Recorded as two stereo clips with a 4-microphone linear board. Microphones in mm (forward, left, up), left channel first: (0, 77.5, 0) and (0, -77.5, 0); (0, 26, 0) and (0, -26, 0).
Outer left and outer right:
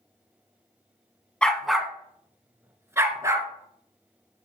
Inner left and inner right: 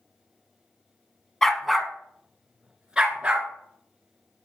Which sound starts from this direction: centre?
A dog barking, at 1.4 s.